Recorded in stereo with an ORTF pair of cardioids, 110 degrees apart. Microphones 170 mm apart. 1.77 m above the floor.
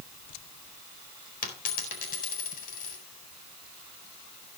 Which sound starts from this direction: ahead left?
A dropped coin, at 1.4 s.